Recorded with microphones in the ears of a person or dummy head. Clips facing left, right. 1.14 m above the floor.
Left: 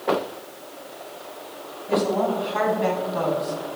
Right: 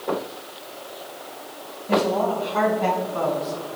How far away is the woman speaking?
About 8 m.